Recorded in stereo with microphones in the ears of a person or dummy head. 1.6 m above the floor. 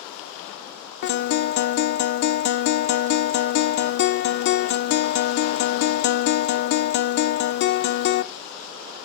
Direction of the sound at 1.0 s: 55° left (ahead or behind).